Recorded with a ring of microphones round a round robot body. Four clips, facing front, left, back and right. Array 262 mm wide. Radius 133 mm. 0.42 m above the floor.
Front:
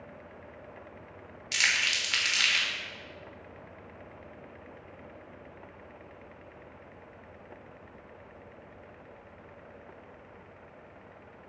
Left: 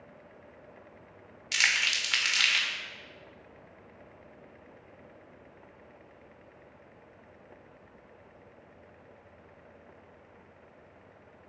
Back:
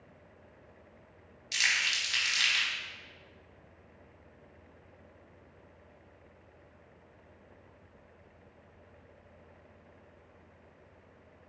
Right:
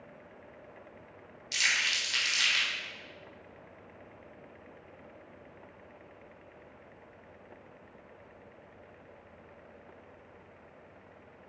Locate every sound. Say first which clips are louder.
1.5 s crumpling: left 2 dB, front 2 dB; 70° left, 1.2 m